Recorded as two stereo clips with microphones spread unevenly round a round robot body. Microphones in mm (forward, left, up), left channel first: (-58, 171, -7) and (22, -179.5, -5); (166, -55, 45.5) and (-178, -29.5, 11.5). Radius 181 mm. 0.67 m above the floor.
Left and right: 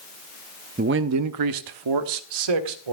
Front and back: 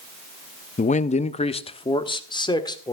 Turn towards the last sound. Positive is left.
turn(degrees=-85)